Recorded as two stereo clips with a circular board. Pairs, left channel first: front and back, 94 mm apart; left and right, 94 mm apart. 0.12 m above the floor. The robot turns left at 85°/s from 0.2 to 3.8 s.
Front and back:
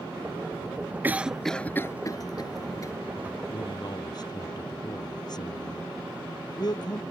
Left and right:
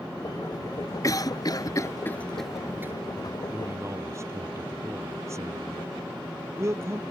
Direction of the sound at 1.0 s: 120° left.